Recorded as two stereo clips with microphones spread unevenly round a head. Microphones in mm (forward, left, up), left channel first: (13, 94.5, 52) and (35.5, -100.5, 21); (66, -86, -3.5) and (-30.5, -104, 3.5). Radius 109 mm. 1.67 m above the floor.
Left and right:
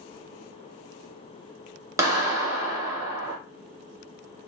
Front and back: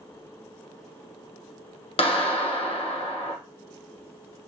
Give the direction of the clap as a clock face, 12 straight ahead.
12 o'clock.